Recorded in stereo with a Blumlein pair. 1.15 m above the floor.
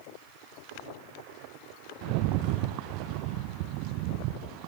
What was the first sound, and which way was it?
A rattle, 45° right.